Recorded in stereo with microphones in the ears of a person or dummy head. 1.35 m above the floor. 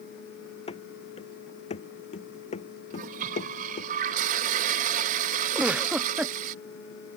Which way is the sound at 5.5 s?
10° right (ahead or behind).